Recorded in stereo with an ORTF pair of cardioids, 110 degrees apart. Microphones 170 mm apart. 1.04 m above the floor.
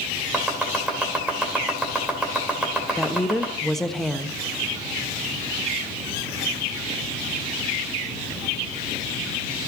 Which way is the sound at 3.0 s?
Straight ahead.